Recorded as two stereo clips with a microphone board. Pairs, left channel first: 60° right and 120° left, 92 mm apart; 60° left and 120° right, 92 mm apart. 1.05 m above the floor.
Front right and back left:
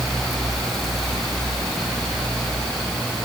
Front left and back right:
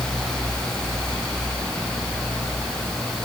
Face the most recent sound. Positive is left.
No sound to turn to.